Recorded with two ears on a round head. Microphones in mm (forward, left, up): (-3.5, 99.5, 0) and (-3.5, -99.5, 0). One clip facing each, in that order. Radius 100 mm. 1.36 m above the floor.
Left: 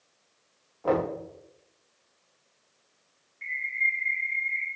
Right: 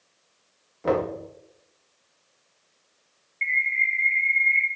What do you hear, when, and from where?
0.8 s knocking: 30° right (ahead or behind), 2 m
3.4 s a bird: 35° right (ahead or behind), 1.3 m